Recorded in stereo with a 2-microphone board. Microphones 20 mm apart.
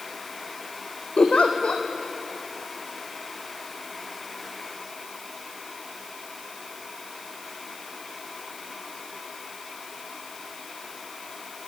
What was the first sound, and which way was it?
A giggle, 75° left (ahead or behind).